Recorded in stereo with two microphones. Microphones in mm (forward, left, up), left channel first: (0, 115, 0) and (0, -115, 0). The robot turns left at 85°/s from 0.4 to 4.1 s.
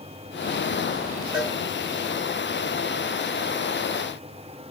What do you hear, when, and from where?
1.3 s a cowbell: 5° right (ahead or behind), 4 m; by 1.6 s 10° left (ahead or behind), 4 m